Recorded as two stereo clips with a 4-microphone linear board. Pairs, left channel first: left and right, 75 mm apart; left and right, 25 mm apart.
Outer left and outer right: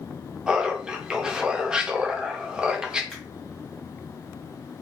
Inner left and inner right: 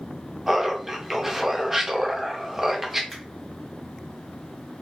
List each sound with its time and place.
0.5 s laughter: 10° right (ahead or behind), 0.6 m
3.1 s a finger snap: 5° left (ahead or behind), 1.0 m